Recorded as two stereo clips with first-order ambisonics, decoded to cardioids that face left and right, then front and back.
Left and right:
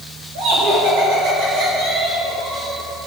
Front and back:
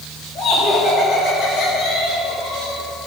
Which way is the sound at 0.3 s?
65° right.